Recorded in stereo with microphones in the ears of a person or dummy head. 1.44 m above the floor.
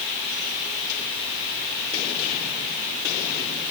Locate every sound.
Only background noise.